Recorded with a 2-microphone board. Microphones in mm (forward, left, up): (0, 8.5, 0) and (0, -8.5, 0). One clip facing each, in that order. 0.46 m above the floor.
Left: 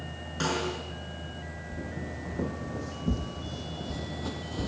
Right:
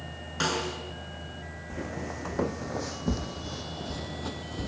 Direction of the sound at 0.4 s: 15° right (ahead or behind).